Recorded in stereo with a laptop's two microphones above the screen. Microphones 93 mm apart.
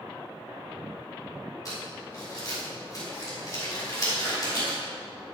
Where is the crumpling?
40° left (ahead or behind), 3 m.